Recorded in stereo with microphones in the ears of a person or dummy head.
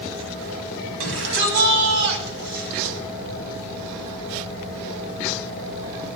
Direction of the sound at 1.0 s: 75° right (ahead or behind).